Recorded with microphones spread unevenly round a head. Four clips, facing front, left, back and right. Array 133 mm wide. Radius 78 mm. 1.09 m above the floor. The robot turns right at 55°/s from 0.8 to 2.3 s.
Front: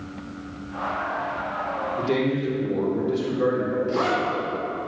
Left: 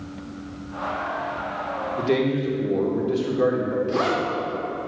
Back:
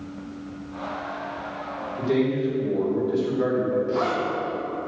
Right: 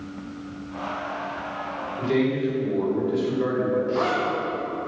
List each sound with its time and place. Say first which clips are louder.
2.0 s a man speaking: even, back 2 dB; 60° left, 3 m; by 3.8 s 80° left, 3 m
3.9 s a zipper: left 1 dB, front 1 dB; 65° left, 3.5 m